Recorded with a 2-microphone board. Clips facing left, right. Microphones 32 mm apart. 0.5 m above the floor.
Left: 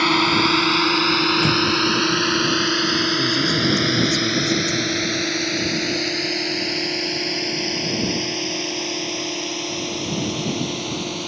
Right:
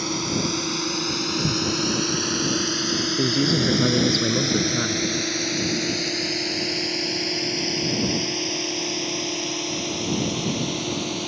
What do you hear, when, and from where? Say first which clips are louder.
0.0 s a drone: left 9 dB; 50° left (ahead or behind); by 11.3 s 5° left (ahead or behind)
1.4 s an explosion: left 7 dB; 70° left (ahead or behind)
3.2 s a man speaking: left 2 dB; 30° right (ahead or behind)